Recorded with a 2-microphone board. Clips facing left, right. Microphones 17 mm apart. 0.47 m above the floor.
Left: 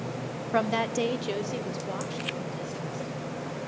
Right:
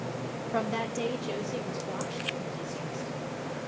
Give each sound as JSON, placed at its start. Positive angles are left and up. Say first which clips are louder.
{"t": 0.5, "sound": "a woman speaking", "louder": "left 5 dB", "side_deg": 25, "distance_m": 0.9}